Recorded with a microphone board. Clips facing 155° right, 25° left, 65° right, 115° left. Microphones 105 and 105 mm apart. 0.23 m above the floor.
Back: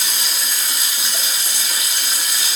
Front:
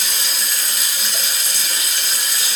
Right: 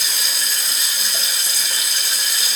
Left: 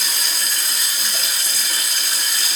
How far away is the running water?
About 2 m.